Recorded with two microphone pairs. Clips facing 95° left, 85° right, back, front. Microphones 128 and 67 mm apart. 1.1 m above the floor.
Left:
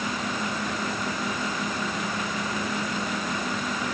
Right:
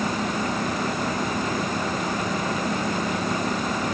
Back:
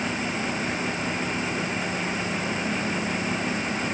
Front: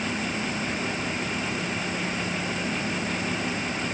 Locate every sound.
Only background noise.